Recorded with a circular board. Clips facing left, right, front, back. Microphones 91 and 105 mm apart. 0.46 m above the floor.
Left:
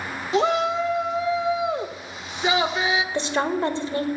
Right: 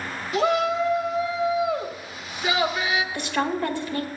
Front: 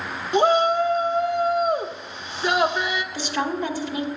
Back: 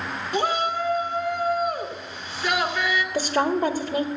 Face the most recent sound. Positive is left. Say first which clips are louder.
# left 2 dB, back 5 dB
turn(degrees=145)